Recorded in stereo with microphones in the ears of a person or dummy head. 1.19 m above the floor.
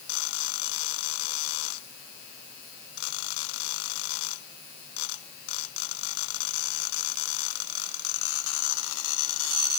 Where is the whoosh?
I don't hear a whoosh.